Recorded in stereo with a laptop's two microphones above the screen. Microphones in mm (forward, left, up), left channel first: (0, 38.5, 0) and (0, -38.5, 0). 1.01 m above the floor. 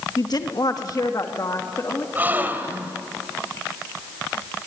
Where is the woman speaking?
60° left (ahead or behind), 1.5 m; by 2.0 s 40° left (ahead or behind), 2.5 m.